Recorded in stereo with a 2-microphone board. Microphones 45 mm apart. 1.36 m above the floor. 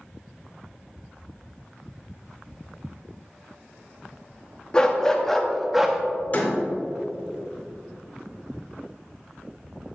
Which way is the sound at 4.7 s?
20° left (ahead or behind).